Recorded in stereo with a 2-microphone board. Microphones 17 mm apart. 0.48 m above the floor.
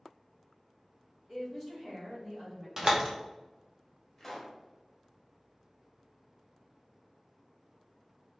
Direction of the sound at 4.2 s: 15° left (ahead or behind).